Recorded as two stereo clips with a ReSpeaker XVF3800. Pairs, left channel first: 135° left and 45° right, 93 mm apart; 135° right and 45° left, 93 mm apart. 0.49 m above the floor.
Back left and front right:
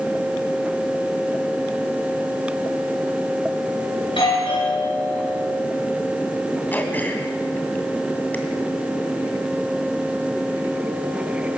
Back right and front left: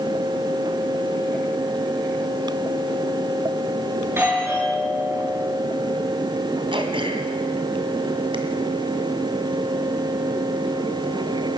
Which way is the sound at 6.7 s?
65° left.